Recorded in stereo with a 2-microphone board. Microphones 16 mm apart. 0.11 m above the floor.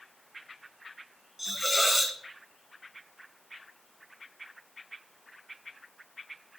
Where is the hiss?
10° right (ahead or behind), 1.2 m.